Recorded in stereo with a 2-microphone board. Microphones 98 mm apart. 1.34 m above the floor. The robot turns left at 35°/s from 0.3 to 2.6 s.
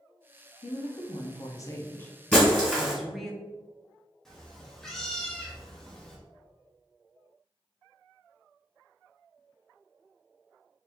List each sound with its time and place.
0.6 s a woman speaking: 70° left, 0.7 m; by 3.3 s straight ahead, 0.7 m
2.3 s breaking glass: 10° left (ahead or behind), 1.9 m; by 2.9 s 5° left (ahead or behind), 1.9 m
4.2 s a cat meowing: 5° left (ahead or behind), 0.8 m